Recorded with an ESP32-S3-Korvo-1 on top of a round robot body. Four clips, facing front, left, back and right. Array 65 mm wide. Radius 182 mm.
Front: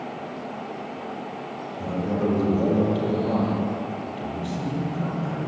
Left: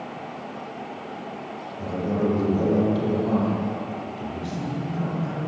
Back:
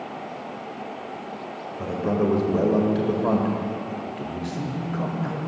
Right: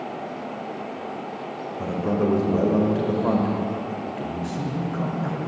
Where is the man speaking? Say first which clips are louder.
Right 1 dB, back 2 dB; 140° right, 2 m.